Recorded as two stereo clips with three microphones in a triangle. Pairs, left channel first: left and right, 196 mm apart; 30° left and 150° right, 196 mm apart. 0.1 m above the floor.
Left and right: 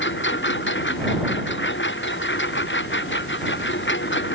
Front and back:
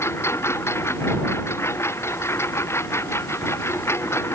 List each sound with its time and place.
0.0 s a lawn mower: 105° left